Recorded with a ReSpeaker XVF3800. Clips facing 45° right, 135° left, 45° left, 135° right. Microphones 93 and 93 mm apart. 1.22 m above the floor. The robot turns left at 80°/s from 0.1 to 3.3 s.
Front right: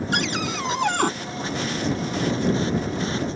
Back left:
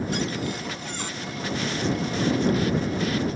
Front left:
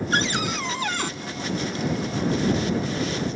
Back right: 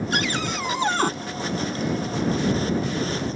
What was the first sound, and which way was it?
A cupboard door, 10° right.